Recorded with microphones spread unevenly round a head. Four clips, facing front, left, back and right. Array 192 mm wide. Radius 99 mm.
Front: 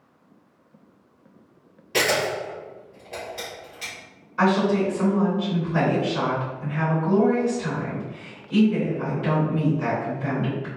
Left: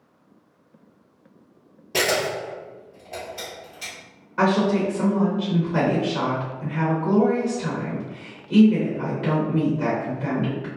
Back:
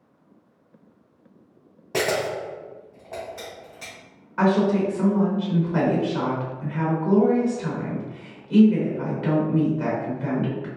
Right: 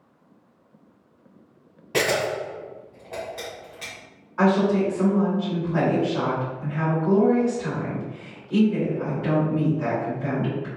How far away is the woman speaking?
About 1.2 m.